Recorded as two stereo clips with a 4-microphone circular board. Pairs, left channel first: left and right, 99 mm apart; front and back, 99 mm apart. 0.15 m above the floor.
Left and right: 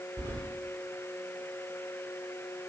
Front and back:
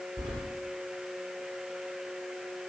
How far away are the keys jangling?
About 2.5 m.